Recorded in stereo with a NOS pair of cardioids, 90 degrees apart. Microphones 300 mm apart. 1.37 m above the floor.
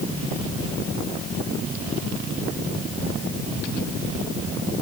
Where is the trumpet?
I don't hear a trumpet.